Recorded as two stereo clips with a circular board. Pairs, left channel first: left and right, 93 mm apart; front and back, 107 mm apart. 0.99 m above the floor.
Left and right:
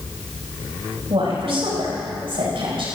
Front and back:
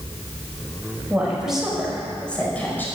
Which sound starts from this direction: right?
A woman speaking, at 1.1 s.